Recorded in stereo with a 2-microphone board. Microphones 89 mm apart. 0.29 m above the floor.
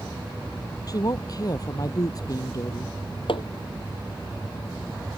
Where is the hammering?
75° left (ahead or behind).